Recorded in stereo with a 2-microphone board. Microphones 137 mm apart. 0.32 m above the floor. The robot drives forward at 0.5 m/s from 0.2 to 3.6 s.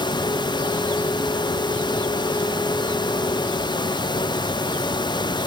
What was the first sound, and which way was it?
Only background noise.